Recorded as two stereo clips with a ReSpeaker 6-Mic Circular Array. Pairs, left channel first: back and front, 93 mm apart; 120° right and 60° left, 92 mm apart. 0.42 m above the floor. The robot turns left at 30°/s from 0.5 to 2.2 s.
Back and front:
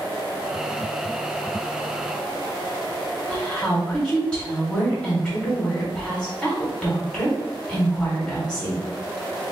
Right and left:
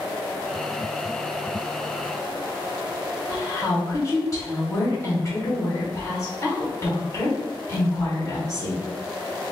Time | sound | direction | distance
3.3 | a woman speaking | 110° right | 1.2 m